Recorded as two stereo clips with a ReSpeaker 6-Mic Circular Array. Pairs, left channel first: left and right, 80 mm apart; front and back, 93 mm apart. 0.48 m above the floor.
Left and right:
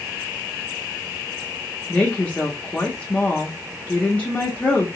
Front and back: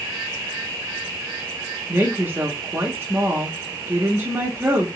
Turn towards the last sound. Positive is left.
turn(degrees=145)